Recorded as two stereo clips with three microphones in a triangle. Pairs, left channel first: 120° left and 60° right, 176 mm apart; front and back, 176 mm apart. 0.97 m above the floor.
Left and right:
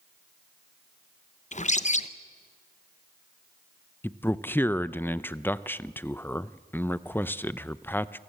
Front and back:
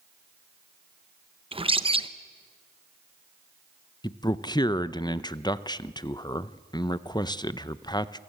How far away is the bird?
About 0.8 m.